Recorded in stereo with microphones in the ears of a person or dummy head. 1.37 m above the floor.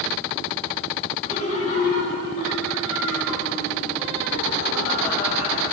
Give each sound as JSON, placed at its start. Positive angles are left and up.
{"t": 1.2, "sound": "laughter", "side_deg": 40, "distance_m": 2.5}